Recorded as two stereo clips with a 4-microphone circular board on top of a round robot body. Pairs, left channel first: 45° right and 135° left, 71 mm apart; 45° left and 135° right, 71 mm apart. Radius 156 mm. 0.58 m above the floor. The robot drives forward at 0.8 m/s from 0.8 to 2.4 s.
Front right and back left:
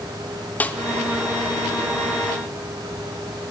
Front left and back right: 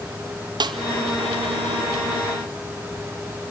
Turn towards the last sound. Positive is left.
turn(degrees=-165)